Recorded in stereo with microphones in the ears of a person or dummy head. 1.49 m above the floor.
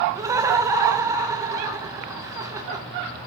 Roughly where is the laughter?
Centre.